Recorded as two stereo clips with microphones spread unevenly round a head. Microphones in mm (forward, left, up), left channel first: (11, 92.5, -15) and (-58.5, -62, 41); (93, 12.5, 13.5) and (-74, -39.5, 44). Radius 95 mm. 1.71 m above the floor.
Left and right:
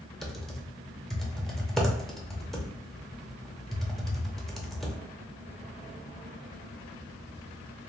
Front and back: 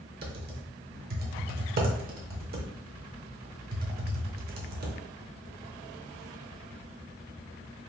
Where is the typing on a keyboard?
165° left, 0.5 m.